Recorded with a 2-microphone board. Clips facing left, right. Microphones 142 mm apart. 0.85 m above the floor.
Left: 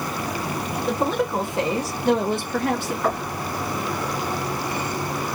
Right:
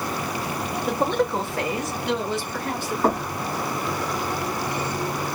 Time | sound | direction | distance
0.9 | a woman speaking | 5° right (ahead or behind) | 1.1 m
3.0 | knocking | 40° right (ahead or behind) | 1.4 m